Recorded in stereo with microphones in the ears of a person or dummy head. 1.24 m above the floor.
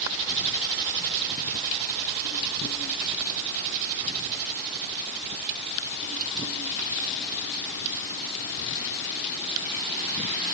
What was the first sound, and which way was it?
Only background noise.